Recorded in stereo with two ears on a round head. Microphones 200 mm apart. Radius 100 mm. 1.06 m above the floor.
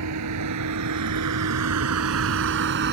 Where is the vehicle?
80° right; by 2.9 s 45° right (ahead or behind).